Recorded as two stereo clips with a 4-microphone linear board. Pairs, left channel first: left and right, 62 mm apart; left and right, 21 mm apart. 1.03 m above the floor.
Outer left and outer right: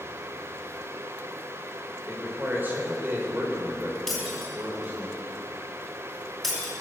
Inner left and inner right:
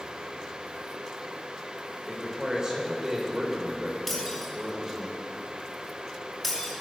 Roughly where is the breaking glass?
Centre.